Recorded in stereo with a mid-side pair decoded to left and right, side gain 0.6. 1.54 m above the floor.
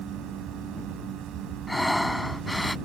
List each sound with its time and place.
0.0 s a fan: 60° right
1.7 s breathing: straight ahead